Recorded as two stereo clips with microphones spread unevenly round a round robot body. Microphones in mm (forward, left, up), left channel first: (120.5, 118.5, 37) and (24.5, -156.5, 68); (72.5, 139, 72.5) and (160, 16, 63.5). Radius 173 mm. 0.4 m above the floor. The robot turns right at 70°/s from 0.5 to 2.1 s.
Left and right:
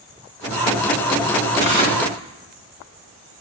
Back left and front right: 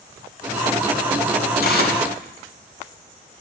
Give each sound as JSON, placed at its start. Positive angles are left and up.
{"t": 1.6, "sound": "tearing paper", "azimuth_deg": 125, "distance_m": 2.5}